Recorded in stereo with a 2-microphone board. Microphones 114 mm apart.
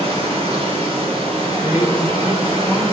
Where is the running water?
70° right (ahead or behind), 3.5 m.